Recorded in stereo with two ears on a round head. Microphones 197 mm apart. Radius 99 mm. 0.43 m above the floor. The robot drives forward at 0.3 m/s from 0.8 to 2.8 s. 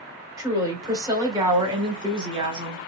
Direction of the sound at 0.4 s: 15° right (ahead or behind).